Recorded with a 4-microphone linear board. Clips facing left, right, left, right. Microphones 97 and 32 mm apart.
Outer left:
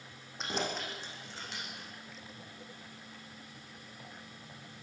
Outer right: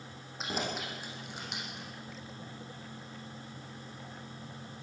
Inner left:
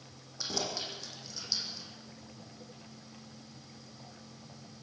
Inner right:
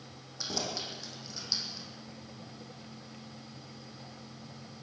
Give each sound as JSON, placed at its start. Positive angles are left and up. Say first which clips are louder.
{"t": 0.4, "sound": "keys jangling", "louder": "even, even", "side_deg": -5, "distance_m": 7.0}